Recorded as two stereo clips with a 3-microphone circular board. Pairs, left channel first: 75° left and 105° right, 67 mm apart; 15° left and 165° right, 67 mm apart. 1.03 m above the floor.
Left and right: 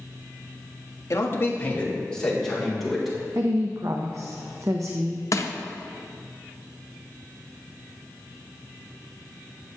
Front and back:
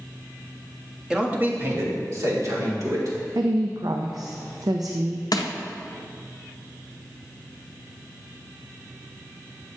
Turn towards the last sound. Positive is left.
turn(degrees=35)